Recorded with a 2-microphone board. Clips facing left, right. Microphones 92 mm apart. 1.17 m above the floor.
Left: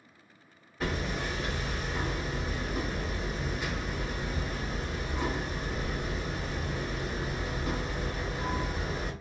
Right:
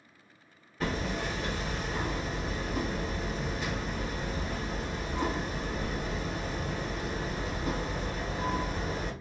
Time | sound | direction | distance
0.8 | hammering | 5° left (ahead or behind) | 1.3 m